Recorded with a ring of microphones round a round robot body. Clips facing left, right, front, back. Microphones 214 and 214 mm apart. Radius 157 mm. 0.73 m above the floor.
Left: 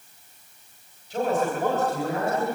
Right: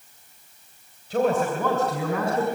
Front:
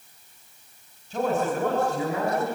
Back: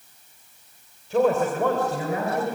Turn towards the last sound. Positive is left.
turn(degrees=-125)